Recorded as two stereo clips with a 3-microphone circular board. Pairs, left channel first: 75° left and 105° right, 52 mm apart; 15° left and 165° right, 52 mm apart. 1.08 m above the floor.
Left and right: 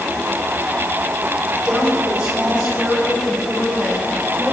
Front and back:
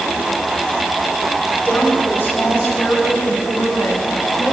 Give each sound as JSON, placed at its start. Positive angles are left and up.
{"t": 1.6, "sound": "a woman speaking", "azimuth_deg": -30, "distance_m": 6.5}